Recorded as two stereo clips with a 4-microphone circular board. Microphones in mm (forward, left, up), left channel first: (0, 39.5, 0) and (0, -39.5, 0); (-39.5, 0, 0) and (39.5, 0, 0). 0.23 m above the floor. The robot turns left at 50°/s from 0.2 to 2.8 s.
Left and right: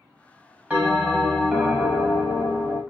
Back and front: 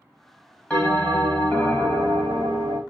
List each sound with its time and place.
0.7 s a bell: 135° right, 0.9 m; by 2.8 s 120° left, 0.9 m